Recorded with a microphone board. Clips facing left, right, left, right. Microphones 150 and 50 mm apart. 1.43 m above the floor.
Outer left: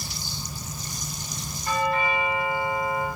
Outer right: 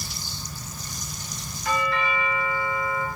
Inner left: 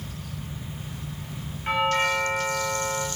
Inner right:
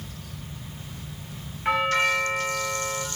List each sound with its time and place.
1.6 s a doorbell: 85° right, 1.9 m